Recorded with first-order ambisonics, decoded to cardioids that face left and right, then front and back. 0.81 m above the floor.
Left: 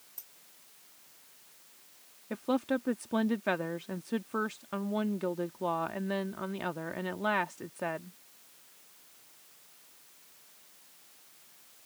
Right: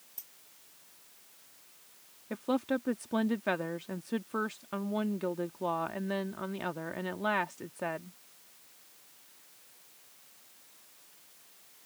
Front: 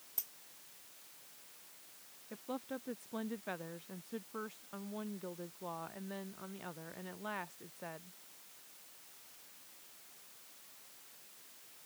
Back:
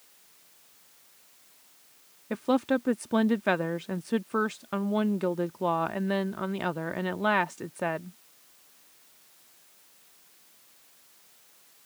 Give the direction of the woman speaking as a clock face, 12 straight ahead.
6 o'clock.